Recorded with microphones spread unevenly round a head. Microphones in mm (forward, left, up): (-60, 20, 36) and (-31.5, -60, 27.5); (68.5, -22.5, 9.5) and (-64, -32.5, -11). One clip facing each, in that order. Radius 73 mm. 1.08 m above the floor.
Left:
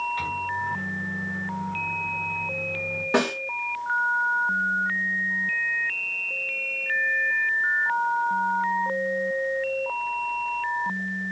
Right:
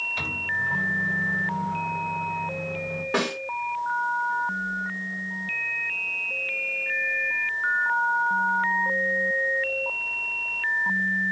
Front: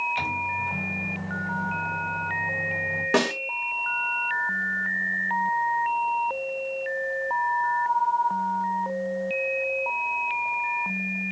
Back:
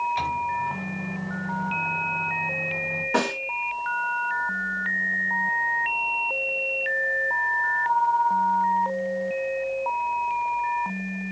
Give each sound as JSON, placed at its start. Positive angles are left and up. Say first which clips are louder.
{"t": 0.2, "sound": "a microwave", "louder": "left 2 dB, back 4 dB", "azimuth_deg": -65, "distance_m": 3.0}
{"t": 3.1, "sound": "a snare drum", "louder": "left 4 dB, front 2 dB", "azimuth_deg": 35, "distance_m": 2.5}